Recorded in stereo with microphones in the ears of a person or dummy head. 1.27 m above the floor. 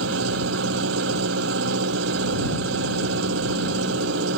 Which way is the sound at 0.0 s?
75° right (ahead or behind).